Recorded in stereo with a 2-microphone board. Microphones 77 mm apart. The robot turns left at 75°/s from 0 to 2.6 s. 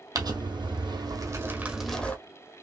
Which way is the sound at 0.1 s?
50° right.